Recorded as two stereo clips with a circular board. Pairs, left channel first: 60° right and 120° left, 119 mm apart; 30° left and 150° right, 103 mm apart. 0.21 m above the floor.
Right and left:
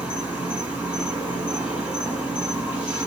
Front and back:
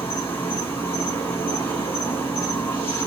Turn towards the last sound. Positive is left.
turn(degrees=55)